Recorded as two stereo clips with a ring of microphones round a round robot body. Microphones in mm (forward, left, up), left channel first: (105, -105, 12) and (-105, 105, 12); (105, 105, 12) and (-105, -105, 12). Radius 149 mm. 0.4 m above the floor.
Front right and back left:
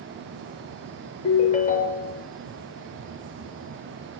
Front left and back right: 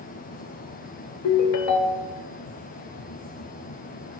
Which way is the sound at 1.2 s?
20° left.